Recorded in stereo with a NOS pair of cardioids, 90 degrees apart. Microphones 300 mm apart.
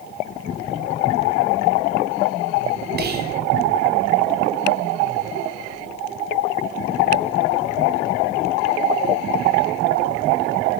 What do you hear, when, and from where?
3.0 s whispering: 35° right, 0.6 m